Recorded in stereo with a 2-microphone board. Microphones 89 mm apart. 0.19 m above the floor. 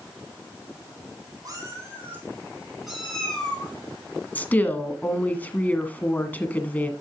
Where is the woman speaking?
20° left (ahead or behind), 1.5 m.